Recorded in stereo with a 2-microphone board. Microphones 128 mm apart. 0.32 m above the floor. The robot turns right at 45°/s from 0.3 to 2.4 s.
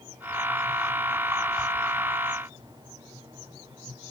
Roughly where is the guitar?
No guitar in this recording.